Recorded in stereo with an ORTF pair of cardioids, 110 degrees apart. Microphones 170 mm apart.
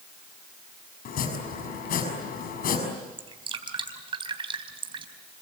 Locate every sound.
1.1 s chopping: 60° left, 6 m
3.2 s dripping: 30° right, 3.5 m